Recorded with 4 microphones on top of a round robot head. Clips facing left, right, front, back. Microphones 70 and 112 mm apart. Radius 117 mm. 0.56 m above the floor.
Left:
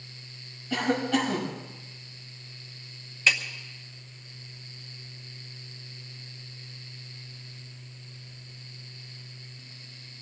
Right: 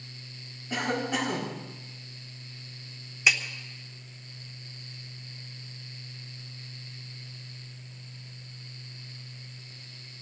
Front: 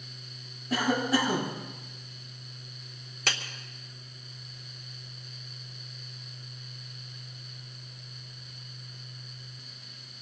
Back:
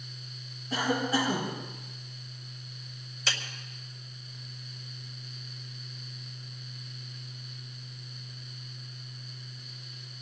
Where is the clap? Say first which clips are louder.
Even, front 2 dB; 10° right, 2 m.